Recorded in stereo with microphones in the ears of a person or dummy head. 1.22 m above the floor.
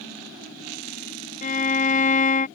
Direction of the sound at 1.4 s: 40° left (ahead or behind).